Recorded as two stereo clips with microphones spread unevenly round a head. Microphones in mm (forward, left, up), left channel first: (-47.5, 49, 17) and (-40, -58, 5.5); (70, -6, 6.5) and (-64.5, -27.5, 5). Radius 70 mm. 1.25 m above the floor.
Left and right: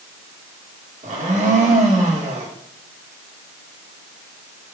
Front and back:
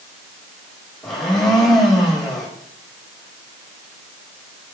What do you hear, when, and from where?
1.0 s a blender: 80° right, 1.8 m